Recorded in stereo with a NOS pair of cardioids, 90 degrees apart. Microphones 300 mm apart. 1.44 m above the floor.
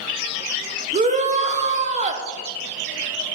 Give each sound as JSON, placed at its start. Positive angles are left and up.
{"t": 0.9, "sound": "a shout", "azimuth_deg": -25, "distance_m": 0.8}